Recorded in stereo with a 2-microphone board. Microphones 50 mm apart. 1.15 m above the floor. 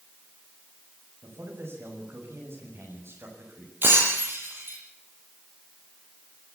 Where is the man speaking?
65° right (ahead or behind), 7.5 m.